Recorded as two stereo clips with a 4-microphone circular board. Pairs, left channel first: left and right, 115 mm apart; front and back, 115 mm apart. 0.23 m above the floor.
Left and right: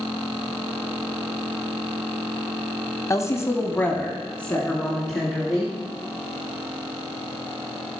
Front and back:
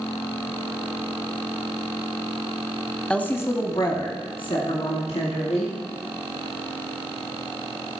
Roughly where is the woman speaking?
Left.